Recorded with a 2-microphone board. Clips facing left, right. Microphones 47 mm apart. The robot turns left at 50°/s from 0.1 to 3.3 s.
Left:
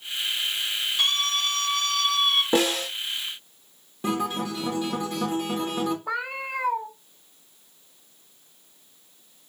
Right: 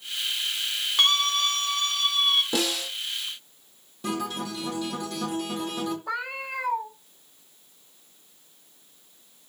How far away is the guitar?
About 2 m.